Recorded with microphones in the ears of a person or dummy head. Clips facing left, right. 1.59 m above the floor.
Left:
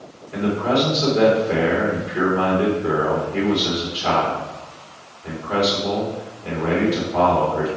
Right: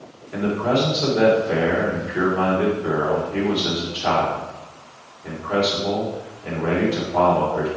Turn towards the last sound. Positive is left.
turn(degrees=-20)  # may be behind; listen again after turning